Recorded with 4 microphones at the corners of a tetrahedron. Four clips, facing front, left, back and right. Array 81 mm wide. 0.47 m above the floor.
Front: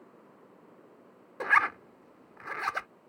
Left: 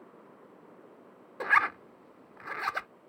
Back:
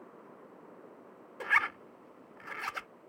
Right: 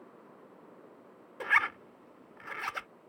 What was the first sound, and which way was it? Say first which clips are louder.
A zipper: left 3 dB, front 4 dB; 35° left.